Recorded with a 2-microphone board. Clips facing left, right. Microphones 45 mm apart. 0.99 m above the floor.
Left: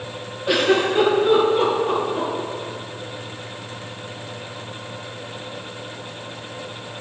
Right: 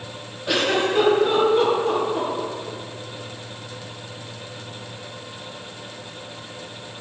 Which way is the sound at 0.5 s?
10° left (ahead or behind).